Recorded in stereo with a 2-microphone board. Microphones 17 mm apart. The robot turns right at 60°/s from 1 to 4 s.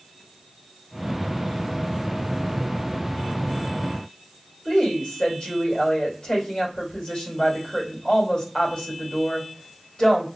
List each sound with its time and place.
4.7 s a woman speaking: 60° left (ahead or behind), 3 m